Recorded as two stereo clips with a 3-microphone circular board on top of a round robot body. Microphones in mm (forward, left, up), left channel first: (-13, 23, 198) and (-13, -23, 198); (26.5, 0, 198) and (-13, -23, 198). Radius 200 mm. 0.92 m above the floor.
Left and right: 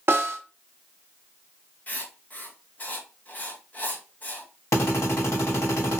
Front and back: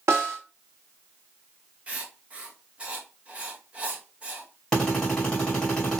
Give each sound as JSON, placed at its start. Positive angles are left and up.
{"t": 0.1, "sound": "a snare drum", "azimuth_deg": -125, "distance_m": 0.5}
{"t": 1.9, "sound": "writing", "azimuth_deg": 150, "distance_m": 1.0}
{"t": 4.7, "sound": "a drill", "azimuth_deg": 110, "distance_m": 2.5}